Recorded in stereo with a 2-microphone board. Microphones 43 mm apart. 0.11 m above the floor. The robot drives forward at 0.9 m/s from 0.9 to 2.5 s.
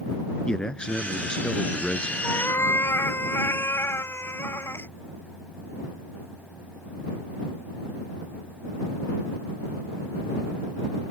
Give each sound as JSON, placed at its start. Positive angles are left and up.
{"t": 0.5, "sound": "a man speaking", "side_deg": 20}
{"t": 2.2, "sound": "a cat meowing", "side_deg": 75}